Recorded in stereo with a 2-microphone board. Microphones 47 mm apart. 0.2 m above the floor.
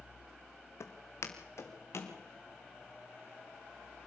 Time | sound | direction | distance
0.8 | footsteps | 80° left | 2.5 m